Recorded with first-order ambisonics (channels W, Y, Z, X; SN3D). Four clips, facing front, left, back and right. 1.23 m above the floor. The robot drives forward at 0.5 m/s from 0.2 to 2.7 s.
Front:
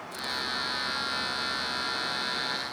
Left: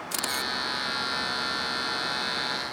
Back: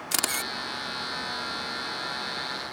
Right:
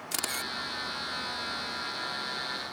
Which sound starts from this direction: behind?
A camera shutter, at 0.1 s.